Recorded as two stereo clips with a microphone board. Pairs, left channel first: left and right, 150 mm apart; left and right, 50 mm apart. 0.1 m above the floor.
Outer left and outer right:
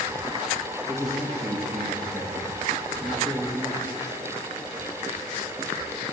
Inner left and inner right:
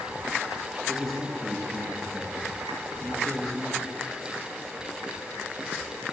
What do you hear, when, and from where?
0.9 s a man speaking: centre (ahead or behind), 2 m